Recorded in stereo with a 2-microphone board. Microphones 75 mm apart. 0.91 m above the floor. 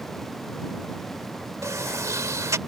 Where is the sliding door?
45° right (ahead or behind).